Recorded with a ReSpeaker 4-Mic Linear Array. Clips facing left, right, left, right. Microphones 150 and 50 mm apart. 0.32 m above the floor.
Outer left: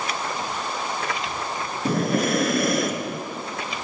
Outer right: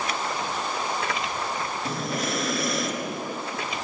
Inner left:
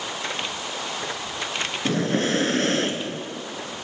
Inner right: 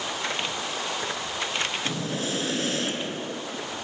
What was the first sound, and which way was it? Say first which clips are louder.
Breathing: outer left 10 dB, inner left 7 dB; 60° left (ahead or behind).